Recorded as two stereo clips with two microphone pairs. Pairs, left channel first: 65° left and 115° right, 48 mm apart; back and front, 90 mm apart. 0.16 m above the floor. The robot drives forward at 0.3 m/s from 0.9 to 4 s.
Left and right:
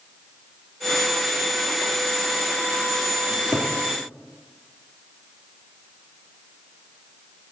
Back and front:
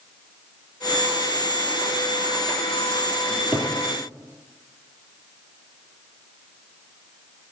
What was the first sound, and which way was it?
A cupboard door, 100° left.